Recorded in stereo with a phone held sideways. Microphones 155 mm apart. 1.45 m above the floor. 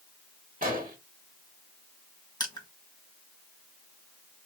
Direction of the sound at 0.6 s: 65° right (ahead or behind).